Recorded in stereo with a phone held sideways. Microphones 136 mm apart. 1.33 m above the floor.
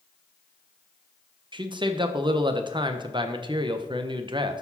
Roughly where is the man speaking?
Right.